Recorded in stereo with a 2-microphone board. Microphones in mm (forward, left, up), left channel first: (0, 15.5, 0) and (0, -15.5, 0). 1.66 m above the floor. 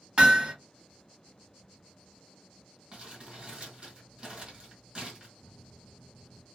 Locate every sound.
0.2 s hammering: 25° right (ahead or behind), 1.2 m
2.9 s crumpling: 35° right (ahead or behind), 1.8 m
5.4 s a microwave: 45° left (ahead or behind), 1.0 m